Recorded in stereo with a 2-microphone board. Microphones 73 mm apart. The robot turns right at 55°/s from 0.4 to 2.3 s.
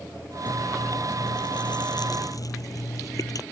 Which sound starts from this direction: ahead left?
Chewing, at 0.5 s.